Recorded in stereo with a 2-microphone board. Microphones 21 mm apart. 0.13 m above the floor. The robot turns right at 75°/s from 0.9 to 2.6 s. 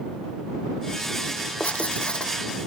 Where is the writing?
85° left; by 2.3 s 140° left.